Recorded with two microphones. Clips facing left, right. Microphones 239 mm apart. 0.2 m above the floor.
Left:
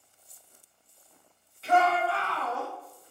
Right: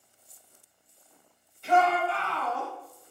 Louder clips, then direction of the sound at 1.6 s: Even; 5° left (ahead or behind).